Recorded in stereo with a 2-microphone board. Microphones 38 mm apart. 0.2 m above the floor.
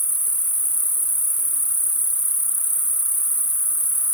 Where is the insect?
40° right (ahead or behind), 1.4 m.